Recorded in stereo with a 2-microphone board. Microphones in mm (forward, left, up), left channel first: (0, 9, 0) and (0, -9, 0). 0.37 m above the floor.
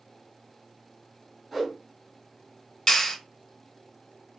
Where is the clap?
45° left (ahead or behind), 1.6 m.